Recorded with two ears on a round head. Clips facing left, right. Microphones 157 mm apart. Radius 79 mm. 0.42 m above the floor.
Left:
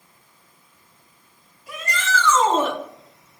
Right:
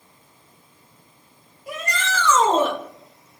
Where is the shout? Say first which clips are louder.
Left 1 dB; 50° right (ahead or behind), 1.9 m; by 2.8 s 40° right (ahead or behind), 1.1 m.